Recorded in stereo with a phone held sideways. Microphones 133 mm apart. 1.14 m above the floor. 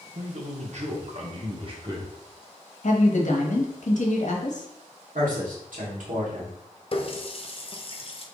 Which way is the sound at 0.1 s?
65° right (ahead or behind).